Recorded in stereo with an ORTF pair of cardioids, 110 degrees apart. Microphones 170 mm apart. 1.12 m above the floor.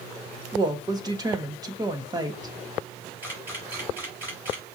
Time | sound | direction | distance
0.5 | a woman speaking | 20° right | 1.3 m
3.2 | a camera shutter | 10° right | 4 m